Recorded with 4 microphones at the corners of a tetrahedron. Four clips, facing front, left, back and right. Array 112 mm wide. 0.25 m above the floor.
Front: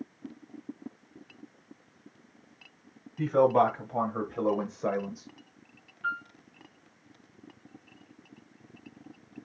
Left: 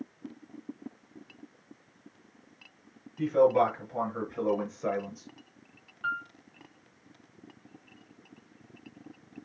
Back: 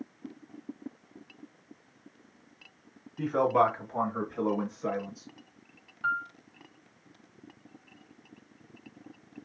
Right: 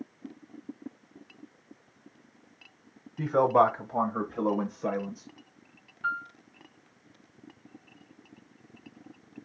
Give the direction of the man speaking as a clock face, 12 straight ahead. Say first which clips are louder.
Right 1 dB, front 2 dB; 3 o'clock.